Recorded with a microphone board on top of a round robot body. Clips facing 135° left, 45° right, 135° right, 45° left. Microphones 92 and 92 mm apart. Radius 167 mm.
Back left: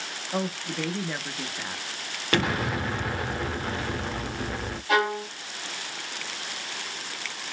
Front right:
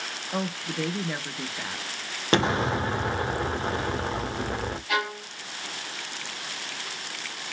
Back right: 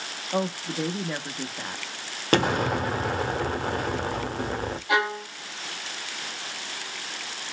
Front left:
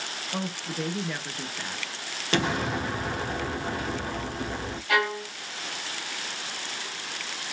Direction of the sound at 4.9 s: 165° left.